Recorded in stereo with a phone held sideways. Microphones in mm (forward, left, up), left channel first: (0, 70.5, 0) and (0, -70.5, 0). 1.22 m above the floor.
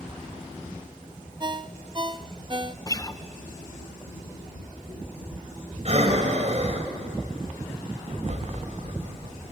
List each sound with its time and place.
1.4 s a ringtone: 35° right (ahead or behind), 0.6 m
2.9 s a guitar: 25° left (ahead or behind), 0.6 m
5.8 s breathing: 55° right (ahead or behind), 3 m